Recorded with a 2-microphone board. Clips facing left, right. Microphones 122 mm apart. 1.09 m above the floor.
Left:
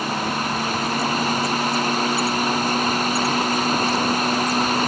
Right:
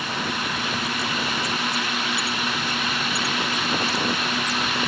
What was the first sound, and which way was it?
Only background noise.